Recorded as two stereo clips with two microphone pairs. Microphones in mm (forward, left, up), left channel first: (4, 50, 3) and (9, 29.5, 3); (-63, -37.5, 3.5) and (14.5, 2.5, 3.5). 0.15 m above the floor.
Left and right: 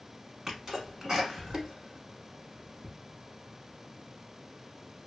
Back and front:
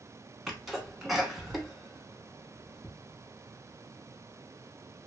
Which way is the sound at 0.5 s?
60° right.